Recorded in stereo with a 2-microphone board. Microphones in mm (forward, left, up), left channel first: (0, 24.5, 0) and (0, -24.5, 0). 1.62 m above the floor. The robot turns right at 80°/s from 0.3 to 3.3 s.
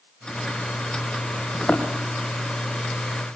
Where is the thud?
30° left (ahead or behind), 3 m; by 1.9 s 10° left (ahead or behind), 3 m.